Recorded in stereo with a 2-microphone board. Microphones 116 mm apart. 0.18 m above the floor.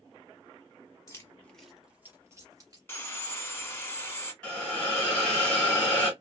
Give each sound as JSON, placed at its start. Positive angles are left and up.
{"t": 1.1, "sound": "keys jangling", "side_deg": 25, "distance_m": 1.0}
{"t": 2.9, "sound": "sawing", "side_deg": 20, "distance_m": 0.8}
{"t": 4.4, "sound": "a hiss", "side_deg": 10, "distance_m": 1.5}